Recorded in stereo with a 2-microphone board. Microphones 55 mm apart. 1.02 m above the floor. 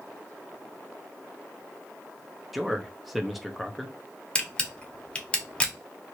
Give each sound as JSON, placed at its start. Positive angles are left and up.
{"t": 2.5, "sound": "a man speaking", "side_deg": -5, "distance_m": 0.6}
{"t": 4.3, "sound": "a camera shutter", "side_deg": 15, "distance_m": 0.6}